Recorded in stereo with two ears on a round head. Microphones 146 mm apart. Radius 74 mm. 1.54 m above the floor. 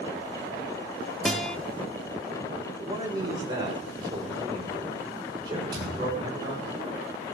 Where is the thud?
30° right (ahead or behind), 8.5 m.